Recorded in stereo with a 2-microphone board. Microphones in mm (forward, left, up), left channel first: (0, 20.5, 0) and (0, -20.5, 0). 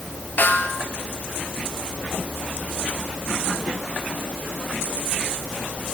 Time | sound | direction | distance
0.4 | a snare drum | 50° left (ahead or behind) | 2.5 m